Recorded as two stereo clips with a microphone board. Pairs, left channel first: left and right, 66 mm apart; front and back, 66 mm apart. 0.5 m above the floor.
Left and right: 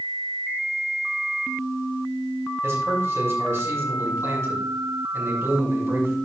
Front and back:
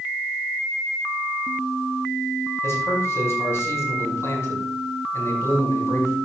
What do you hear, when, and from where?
2.6 s a man speaking: 45° right, 5 m